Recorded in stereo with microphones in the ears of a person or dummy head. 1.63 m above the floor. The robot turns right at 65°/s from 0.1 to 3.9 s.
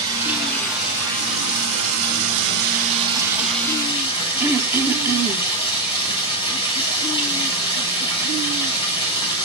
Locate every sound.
0.0 s running water: 140° left, 8.5 m; by 9.4 s 25° left, 8.5 m
4.4 s throat clearing: 10° right (ahead or behind), 0.9 m